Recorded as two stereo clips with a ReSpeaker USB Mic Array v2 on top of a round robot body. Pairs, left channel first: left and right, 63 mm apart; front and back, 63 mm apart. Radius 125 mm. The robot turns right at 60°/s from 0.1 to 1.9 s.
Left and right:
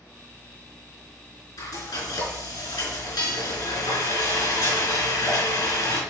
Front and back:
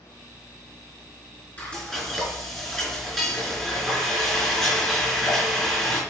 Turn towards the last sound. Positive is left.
turn(degrees=95)